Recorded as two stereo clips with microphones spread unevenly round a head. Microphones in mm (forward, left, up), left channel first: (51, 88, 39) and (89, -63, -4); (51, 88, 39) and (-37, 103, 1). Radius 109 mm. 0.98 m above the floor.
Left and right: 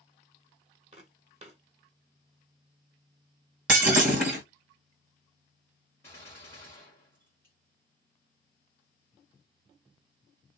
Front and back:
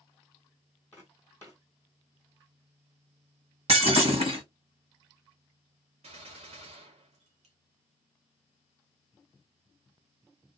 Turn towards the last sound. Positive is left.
turn(degrees=180)